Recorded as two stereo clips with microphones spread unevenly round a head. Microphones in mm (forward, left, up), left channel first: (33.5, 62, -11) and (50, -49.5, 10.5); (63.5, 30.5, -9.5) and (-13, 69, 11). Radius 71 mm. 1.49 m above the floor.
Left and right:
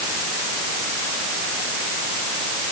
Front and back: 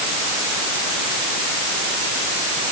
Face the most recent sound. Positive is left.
No sound to turn to.